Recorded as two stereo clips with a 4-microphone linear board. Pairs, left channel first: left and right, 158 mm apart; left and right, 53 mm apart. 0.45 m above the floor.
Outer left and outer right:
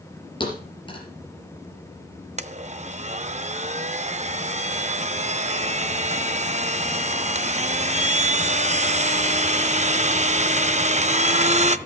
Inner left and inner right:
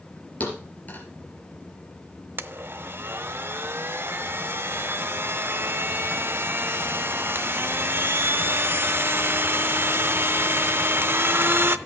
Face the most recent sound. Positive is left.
turn(degrees=-45)  # may be behind; listen again after turning